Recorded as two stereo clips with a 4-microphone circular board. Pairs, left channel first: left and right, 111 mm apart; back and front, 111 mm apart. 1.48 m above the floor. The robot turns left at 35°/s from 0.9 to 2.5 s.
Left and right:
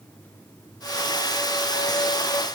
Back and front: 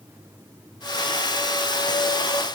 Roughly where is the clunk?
No clunk in this recording.